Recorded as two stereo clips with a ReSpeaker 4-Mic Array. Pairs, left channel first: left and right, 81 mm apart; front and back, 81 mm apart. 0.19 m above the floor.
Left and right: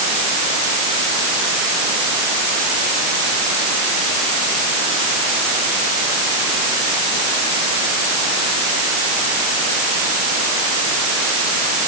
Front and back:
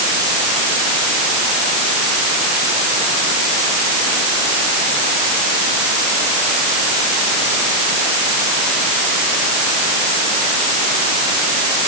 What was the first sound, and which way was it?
Only background noise.